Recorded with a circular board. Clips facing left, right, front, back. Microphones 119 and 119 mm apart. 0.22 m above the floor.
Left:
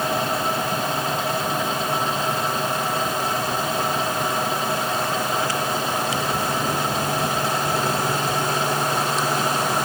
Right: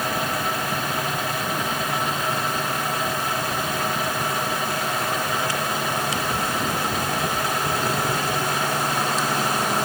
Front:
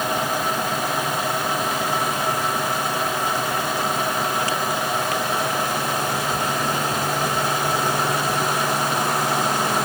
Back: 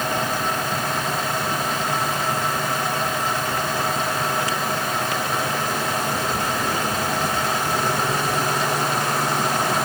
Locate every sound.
Only background noise.